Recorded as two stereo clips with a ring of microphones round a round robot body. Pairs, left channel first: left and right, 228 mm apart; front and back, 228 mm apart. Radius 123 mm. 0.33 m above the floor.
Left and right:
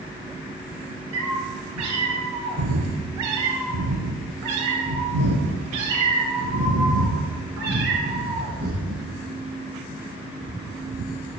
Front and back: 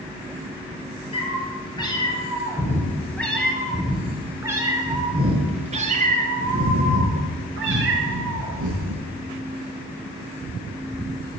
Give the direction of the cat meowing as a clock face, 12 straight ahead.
2 o'clock.